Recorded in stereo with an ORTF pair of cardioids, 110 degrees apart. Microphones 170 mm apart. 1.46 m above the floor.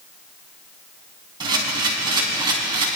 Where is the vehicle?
No vehicle in this recording.